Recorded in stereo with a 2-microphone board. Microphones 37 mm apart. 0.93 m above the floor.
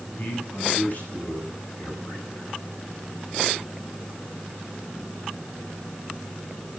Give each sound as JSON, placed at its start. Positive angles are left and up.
{"t": 0.2, "sound": "a man speaking", "side_deg": 55, "distance_m": 9.0}